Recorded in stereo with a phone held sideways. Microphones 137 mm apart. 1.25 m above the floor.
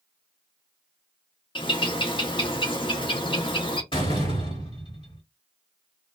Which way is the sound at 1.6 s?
35° left (ahead or behind).